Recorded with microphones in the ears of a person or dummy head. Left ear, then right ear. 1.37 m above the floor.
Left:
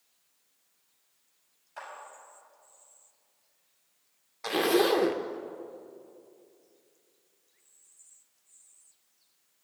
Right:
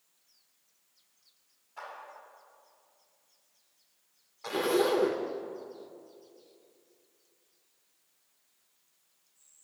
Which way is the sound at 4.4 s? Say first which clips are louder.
Left 3 dB; 20° left (ahead or behind).